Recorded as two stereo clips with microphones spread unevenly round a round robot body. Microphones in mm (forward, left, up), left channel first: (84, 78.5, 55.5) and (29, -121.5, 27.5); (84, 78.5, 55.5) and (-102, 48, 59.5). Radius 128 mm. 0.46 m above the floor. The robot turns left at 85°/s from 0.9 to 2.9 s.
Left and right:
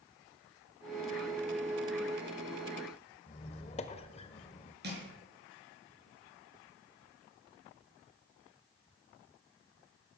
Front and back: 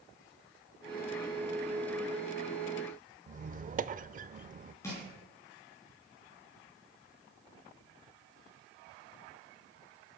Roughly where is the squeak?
Behind left.